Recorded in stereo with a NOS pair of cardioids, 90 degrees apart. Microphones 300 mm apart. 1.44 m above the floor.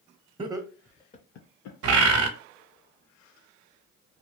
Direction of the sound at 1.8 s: 55° right.